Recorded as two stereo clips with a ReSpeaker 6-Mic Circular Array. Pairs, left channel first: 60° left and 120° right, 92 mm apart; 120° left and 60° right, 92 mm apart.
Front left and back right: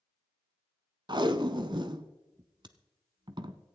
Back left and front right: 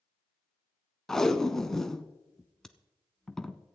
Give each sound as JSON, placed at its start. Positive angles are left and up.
{"t": 1.1, "sound": "tape being pulled", "azimuth_deg": -155, "distance_m": 0.8}